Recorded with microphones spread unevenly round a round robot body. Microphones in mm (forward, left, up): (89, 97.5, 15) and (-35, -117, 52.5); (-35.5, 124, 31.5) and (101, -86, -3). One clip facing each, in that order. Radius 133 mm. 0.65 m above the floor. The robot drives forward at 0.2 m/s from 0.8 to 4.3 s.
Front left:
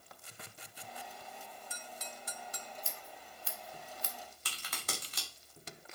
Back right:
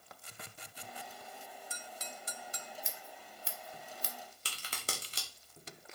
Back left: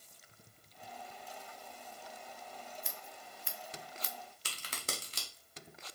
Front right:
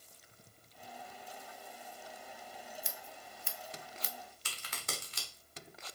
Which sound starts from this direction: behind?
A crack, at 4.5 s.